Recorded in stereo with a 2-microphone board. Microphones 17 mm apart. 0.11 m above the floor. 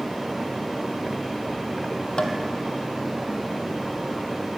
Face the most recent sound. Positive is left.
turn(degrees=60)  # may be behind; listen again after turning